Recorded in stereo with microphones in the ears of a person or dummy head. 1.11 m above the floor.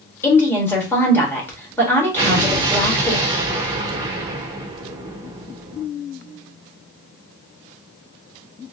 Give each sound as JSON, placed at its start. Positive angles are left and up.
{"t": 0.2, "sound": "a woman speaking", "side_deg": 10, "distance_m": 1.7}
{"t": 2.2, "sound": "an explosion", "side_deg": -25, "distance_m": 1.2}